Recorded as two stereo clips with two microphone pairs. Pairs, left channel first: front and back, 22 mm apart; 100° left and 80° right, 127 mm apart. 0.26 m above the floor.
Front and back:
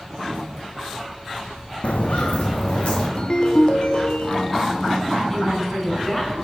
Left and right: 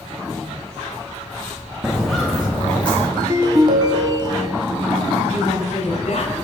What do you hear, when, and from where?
1.8 s footsteps: 5° left, 0.9 m; by 3.1 s 20° left, 2.5 m
3.2 s a ringtone: 30° right, 0.7 m
5.3 s a woman speaking: 85° left, 2.5 m